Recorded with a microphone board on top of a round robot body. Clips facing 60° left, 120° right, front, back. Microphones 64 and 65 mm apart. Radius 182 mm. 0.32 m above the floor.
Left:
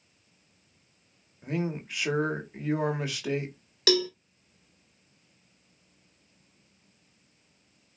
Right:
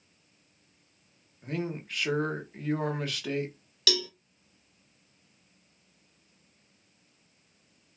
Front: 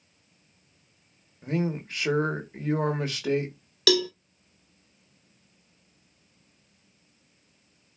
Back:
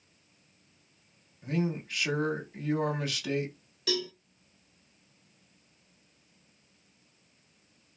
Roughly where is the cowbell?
Ahead.